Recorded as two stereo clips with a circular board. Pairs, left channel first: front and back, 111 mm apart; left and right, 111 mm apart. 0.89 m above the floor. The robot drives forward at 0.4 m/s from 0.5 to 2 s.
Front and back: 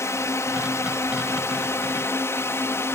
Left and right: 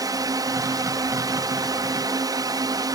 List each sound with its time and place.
0.0 s a drone: 55° right